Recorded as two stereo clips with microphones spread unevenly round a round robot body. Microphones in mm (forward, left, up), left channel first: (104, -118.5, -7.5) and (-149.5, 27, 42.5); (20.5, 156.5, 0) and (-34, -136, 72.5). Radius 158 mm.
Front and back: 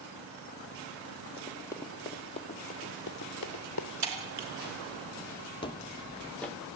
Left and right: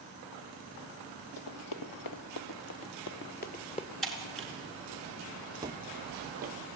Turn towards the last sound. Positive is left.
turn(degrees=-130)